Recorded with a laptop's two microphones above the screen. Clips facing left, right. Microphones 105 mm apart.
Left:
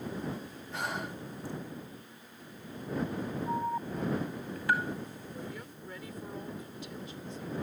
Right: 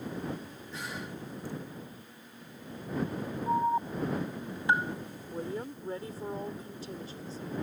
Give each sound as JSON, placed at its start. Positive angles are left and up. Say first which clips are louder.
{"t": 0.7, "sound": "breathing", "louder": "left 4 dB", "side_deg": 65}
{"t": 3.5, "sound": "an alarm", "louder": "right 7 dB", "side_deg": -25}
{"t": 5.3, "sound": "a woman speaking", "louder": "right 6 dB", "side_deg": -35}